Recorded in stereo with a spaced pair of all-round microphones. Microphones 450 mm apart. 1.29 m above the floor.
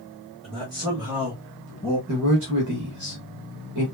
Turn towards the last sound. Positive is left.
turn(degrees=-40)  # may be behind; listen again after turning